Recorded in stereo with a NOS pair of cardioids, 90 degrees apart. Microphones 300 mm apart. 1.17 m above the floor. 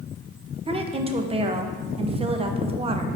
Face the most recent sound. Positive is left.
turn(degrees=-20)